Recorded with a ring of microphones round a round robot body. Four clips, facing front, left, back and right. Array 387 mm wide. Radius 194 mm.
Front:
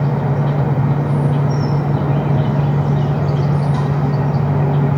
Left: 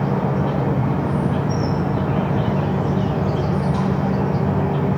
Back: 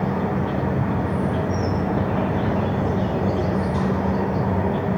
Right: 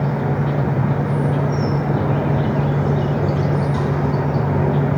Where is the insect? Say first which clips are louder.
Even, front 4 dB; 20° right, 1.9 m.